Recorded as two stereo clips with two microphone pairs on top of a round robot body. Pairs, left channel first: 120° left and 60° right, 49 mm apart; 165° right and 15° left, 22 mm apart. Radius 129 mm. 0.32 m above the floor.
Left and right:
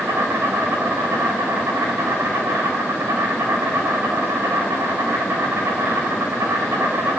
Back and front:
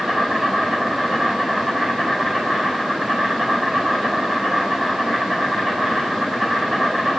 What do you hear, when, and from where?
0.0 s an insect: 40° right, 5.5 m